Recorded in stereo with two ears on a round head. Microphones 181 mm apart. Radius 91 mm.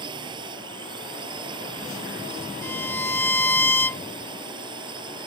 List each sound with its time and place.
0.0 s a drone: 25° right (ahead or behind)
2.6 s a violin: 10° left (ahead or behind)